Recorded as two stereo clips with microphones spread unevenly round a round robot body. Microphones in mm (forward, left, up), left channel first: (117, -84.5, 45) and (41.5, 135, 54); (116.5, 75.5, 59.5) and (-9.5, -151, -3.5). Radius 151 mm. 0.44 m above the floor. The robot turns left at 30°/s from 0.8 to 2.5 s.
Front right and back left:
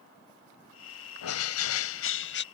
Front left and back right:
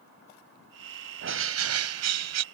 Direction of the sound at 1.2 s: 80° right.